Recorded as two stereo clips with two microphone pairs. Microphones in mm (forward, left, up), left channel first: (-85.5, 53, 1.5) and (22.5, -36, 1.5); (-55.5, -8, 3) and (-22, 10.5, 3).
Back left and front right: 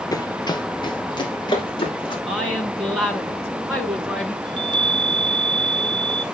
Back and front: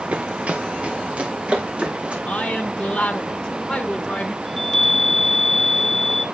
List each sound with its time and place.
0.1 s running footsteps: 80° left, 0.5 m; by 2.2 s 85° left, 3 m
2.3 s a woman speaking: 125° right, 1.2 m
4.5 s a chime: 80° right, 0.6 m